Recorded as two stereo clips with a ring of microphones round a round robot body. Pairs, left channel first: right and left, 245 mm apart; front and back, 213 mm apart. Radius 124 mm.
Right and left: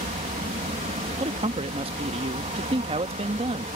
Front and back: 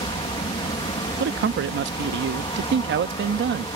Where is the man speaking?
155° left.